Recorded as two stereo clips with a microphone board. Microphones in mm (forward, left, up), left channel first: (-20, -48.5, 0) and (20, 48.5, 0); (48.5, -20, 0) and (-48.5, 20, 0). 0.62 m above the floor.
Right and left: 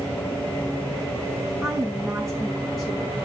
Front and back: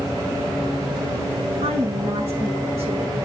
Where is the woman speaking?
160° left, 5 m.